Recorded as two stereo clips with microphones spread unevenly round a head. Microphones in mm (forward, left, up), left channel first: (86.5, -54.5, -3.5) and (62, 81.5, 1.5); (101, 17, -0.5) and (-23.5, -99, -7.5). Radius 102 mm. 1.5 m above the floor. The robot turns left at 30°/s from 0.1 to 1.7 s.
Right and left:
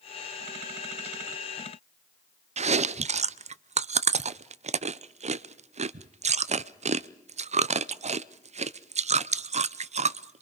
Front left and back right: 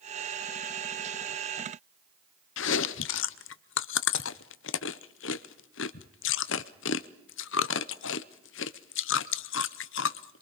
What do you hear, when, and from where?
2.6 s chewing: 60° left, 0.6 m